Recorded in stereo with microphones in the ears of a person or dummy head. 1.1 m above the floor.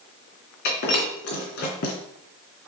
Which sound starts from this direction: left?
Breaking glass, at 0.7 s.